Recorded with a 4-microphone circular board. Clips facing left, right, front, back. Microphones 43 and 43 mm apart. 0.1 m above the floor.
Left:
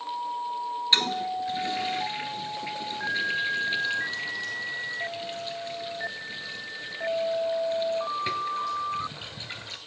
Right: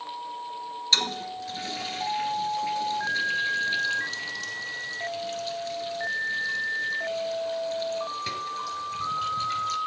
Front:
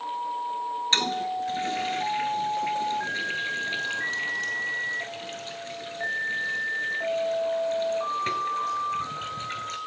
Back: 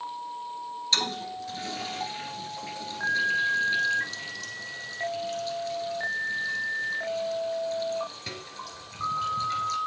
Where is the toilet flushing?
30° left, 1.2 m.